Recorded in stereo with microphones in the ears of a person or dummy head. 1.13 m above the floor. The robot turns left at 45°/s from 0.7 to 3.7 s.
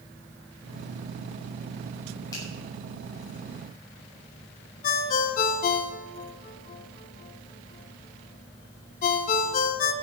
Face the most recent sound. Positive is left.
turn(degrees=50)  # may be behind; listen again after turning